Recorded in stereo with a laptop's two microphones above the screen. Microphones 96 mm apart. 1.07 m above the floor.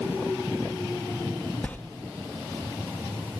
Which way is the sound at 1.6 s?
15° left (ahead or behind).